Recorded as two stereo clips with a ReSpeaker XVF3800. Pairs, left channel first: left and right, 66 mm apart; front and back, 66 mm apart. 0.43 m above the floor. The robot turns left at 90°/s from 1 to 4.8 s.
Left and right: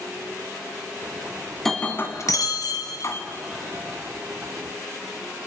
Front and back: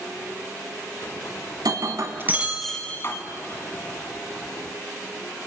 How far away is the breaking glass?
About 1.7 m.